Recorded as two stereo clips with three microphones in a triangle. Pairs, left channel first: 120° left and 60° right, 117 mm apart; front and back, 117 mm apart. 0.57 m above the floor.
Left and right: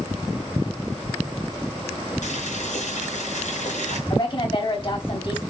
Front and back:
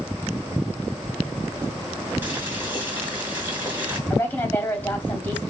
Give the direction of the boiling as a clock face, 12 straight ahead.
8 o'clock.